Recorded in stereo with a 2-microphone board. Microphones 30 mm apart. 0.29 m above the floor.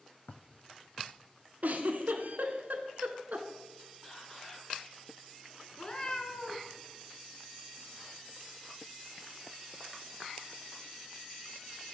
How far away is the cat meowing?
About 0.9 m.